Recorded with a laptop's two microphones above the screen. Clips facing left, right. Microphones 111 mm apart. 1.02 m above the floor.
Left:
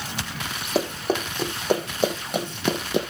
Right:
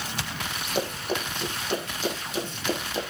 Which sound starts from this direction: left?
Running footsteps, at 0.8 s.